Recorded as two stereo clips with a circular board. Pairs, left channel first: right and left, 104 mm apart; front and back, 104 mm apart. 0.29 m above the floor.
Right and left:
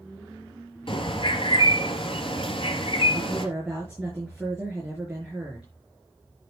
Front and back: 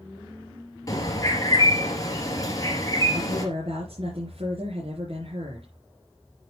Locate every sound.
0.9 s a bird: 55° right, 3 m
3.1 s a woman speaking: 170° left, 5 m